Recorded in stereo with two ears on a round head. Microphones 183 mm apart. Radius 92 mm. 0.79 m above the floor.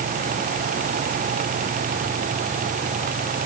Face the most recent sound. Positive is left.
No sound to turn to.